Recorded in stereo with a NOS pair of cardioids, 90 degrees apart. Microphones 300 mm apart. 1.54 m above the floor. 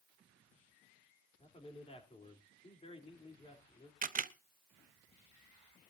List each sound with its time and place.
1.4 s a man speaking: 20° left, 3.5 m
4.0 s a camera shutter: 30° right, 0.7 m